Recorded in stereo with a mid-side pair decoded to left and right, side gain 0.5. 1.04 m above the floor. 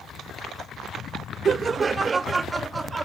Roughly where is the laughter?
Ahead right.